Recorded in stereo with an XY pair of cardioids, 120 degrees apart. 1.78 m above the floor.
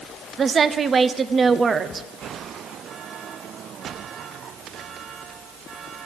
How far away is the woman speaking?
About 0.8 m.